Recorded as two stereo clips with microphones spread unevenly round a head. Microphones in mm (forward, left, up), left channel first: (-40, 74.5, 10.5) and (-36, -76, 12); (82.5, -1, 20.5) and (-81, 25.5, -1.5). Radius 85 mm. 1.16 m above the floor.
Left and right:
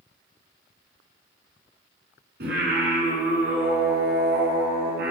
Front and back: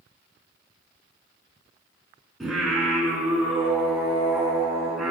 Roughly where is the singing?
Right.